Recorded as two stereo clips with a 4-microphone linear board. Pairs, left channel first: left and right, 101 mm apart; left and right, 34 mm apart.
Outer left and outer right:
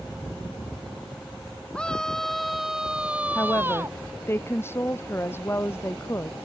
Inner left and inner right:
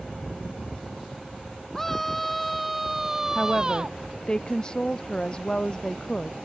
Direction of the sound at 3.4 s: 25° left (ahead or behind).